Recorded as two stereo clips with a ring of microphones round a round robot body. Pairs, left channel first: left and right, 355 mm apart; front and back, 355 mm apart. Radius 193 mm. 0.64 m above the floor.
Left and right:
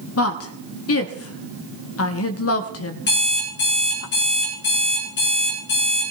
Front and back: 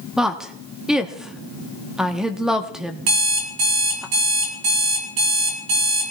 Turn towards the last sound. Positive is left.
turn(degrees=155)